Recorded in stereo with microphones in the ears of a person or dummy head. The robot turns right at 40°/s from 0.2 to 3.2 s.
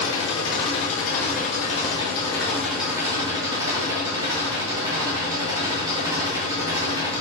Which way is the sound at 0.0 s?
80° left.